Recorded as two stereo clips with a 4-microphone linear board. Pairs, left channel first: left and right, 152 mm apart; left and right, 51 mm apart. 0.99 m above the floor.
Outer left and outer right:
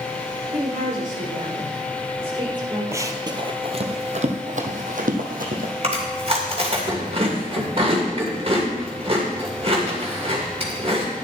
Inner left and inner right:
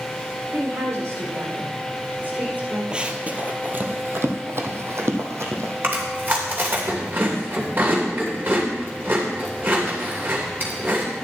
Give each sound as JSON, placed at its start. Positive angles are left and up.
{"t": 0.5, "sound": "a woman speaking", "side_deg": -75, "distance_m": 4.5}
{"t": 2.9, "sound": "running footsteps", "side_deg": -20, "distance_m": 1.2}
{"t": 5.8, "sound": "chewing", "side_deg": -40, "distance_m": 2.5}